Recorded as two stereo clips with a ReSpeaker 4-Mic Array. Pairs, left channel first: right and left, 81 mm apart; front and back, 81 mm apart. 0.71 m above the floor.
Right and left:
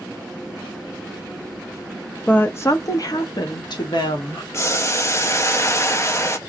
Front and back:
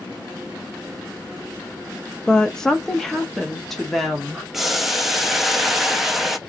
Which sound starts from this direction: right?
Boiling, at 4.5 s.